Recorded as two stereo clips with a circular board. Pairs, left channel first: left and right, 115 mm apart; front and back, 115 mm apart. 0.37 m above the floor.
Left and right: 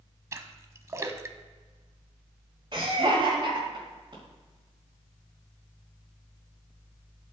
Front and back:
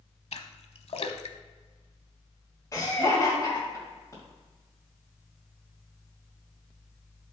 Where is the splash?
30° right, 0.7 m.